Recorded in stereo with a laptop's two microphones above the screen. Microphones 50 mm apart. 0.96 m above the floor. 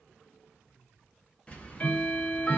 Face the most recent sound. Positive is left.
turn(degrees=25)  # may be behind; listen again after turning